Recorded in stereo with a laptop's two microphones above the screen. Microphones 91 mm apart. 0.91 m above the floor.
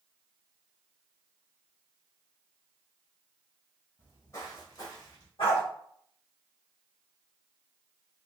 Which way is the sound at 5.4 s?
80° left.